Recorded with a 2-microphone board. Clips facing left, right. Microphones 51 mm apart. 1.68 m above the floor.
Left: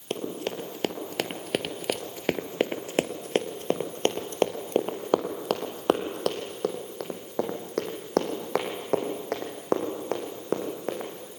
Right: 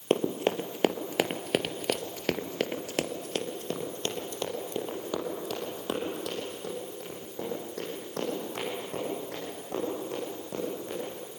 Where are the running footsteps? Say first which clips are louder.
Right 5 dB; 30° right (ahead or behind), 2 m; by 11.1 s 75° left (ahead or behind), 6.5 m.